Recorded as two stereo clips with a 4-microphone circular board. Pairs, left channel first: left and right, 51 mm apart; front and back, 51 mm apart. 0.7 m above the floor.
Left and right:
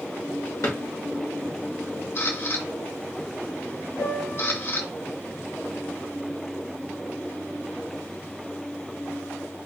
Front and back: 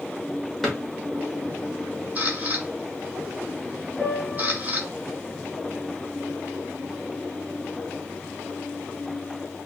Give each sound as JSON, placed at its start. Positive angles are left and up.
{"t": 0.6, "sound": "a drawer", "azimuth_deg": 85, "distance_m": 1.0}
{"t": 2.1, "sound": "a camera shutter", "azimuth_deg": 125, "distance_m": 1.6}
{"t": 4.0, "sound": "a piano", "azimuth_deg": 65, "distance_m": 1.7}